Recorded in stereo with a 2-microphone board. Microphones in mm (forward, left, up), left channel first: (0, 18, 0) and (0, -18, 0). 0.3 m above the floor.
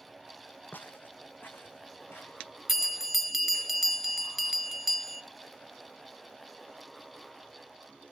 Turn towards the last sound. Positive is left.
turn(degrees=-10)  # may be behind; listen again after turning